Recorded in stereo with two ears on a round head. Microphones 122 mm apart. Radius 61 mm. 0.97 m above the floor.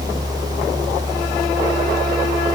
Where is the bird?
I don't hear a bird.